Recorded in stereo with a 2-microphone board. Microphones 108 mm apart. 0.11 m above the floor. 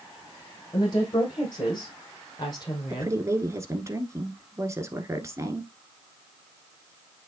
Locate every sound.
0.7 s a woman speaking: 40° left (ahead or behind), 4.5 m
2.9 s a woman speaking: 25° right (ahead or behind), 1.2 m